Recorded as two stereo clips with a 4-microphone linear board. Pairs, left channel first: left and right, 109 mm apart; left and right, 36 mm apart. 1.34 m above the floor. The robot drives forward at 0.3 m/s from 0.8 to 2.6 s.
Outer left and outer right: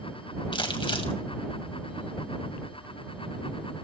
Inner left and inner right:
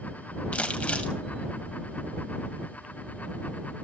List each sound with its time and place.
0.5 s crumpling: 45° left (ahead or behind), 2.5 m; by 1.1 s 50° left (ahead or behind), 2.5 m